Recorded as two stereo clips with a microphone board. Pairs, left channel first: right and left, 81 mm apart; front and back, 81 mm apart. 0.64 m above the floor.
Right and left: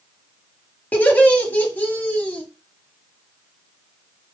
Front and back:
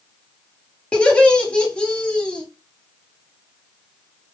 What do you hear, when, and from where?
0.9 s laughter: 55° right, 1.1 m